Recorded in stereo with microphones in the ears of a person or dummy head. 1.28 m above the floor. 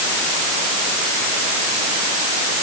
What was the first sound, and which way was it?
Only background noise.